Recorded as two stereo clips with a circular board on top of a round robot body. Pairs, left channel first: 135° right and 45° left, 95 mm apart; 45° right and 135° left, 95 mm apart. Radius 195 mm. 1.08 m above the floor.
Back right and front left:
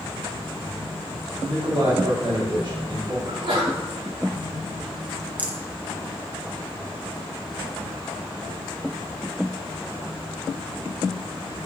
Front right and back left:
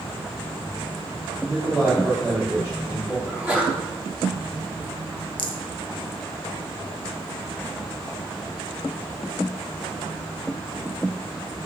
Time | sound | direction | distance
1.5 | a man speaking | 65° left | 3 m
3.2 | a sneeze | 60° left | 2.5 m
5.4 | a rattle | 30° right | 1.0 m